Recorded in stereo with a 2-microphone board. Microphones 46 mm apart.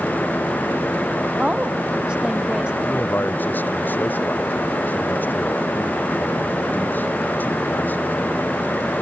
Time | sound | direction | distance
1.4 | a woman speaking | 20° right (ahead or behind) | ?
2.8 | a man speaking | 45° left (ahead or behind) | ?